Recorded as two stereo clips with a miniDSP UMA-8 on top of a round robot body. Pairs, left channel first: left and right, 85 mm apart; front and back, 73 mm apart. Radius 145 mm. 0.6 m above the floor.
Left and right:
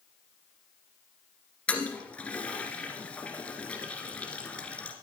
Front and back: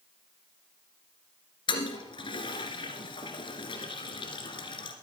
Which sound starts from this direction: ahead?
A toilet flushing, at 1.7 s.